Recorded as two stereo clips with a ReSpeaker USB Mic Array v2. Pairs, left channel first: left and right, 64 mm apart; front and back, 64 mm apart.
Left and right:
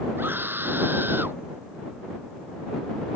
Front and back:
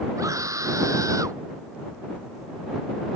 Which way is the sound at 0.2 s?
145° right.